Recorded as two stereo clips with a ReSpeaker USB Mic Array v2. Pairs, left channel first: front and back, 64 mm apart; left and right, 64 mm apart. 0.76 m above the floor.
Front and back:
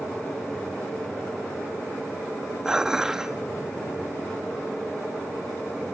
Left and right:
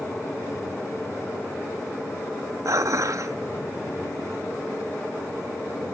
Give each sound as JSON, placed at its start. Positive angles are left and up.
{"t": 2.6, "sound": "dishes clattering", "azimuth_deg": -100, "distance_m": 0.6}